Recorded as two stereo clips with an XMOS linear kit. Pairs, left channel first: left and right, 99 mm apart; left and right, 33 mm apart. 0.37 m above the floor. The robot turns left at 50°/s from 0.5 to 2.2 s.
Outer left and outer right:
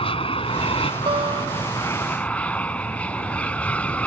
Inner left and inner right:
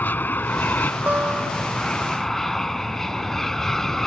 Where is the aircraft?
100° left; by 4.1 s 15° left.